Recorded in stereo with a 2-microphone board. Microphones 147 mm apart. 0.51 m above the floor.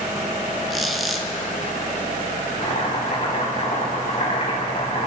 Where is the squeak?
Centre (ahead or behind), 1.3 m.